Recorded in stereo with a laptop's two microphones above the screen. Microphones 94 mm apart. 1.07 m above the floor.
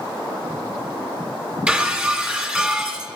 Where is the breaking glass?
15° right (ahead or behind), 1.5 m.